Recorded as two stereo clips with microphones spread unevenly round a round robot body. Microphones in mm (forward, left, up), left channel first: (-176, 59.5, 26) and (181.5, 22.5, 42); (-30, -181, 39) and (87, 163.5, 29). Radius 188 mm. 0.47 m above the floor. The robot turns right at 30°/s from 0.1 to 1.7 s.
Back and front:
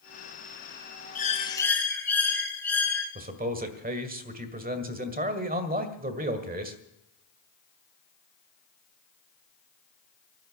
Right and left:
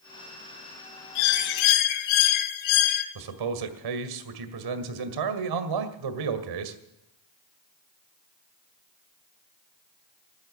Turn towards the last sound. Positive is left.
turn(degrees=60)